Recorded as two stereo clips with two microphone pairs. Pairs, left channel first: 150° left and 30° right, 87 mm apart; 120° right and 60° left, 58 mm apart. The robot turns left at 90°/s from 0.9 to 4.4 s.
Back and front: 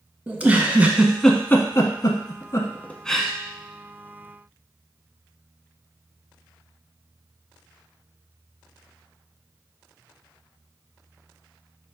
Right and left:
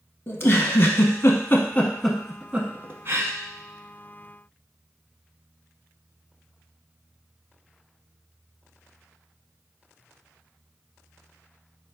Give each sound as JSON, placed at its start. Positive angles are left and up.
{"t": 0.3, "sound": "a giggle", "azimuth_deg": -95, "distance_m": 0.5}